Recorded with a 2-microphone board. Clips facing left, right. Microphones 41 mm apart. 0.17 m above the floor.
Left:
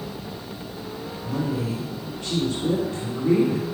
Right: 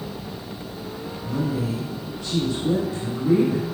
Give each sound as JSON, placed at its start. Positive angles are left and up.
{"t": 1.2, "sound": "a woman speaking", "side_deg": 50, "distance_m": 3.0}